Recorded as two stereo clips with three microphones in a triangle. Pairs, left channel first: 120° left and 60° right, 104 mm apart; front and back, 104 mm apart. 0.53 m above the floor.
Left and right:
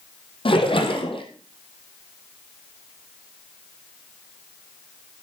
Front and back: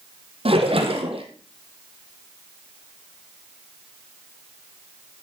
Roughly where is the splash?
Behind left.